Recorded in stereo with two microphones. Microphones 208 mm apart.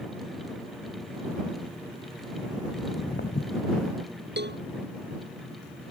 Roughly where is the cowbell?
Right.